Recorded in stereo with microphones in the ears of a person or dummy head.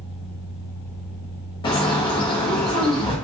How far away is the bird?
About 0.6 m.